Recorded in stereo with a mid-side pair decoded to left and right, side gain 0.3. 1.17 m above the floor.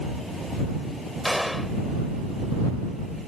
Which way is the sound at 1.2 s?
5° left.